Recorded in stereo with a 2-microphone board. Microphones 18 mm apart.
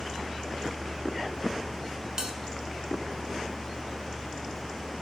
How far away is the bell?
About 1.1 m.